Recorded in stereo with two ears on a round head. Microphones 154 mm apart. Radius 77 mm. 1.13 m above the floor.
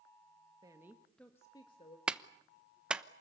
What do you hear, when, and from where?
0.6 s a woman speaking: 25° right (ahead or behind), 1.6 m; by 2.0 s 40° left (ahead or behind), 1.9 m
2.1 s a clap: 5° right (ahead or behind), 0.8 m